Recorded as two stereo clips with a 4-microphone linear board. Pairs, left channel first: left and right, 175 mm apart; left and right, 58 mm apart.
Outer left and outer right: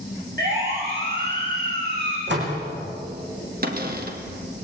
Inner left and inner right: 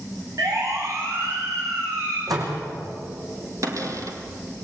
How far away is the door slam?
About 5.5 m.